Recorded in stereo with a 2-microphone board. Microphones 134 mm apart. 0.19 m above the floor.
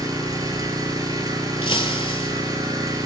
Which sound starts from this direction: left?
Breaking glass, at 1.6 s.